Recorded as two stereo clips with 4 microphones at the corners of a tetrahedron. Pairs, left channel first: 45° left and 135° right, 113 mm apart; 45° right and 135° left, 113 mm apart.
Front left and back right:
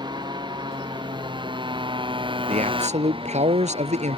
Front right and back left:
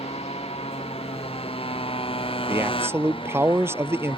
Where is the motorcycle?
80° right; by 4.2 s 90° right.